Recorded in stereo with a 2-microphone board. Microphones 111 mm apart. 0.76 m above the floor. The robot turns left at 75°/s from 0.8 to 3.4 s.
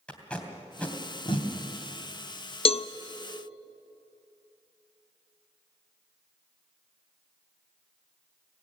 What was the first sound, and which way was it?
Tape being pulled, 10° left (ahead or behind).